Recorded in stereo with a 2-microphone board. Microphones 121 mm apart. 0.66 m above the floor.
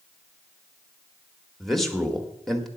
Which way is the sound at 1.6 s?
Centre (ahead or behind).